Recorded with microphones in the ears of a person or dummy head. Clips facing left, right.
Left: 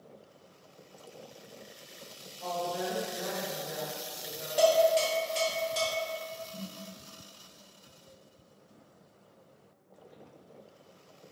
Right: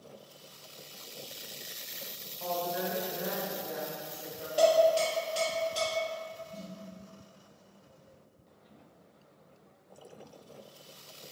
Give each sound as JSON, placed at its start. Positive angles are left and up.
{"t": 2.4, "sound": "a woman speaking", "side_deg": -50, "distance_m": 0.6}
{"t": 4.6, "sound": "dishes clattering", "side_deg": 0, "distance_m": 0.8}
{"t": 6.5, "sound": "a snare drum", "side_deg": -50, "distance_m": 1.4}